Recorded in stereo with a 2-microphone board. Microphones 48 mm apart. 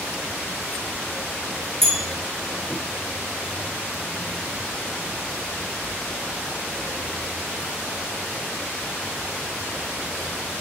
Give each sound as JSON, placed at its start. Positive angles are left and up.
{"t": 1.8, "sound": "a bell", "side_deg": 10, "distance_m": 4.5}